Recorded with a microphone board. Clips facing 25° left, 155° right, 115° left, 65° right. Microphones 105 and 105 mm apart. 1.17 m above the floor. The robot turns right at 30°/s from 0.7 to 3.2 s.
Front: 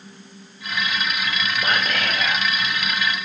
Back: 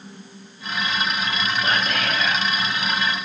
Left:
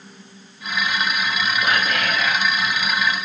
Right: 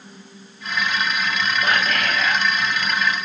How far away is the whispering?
About 1.2 m.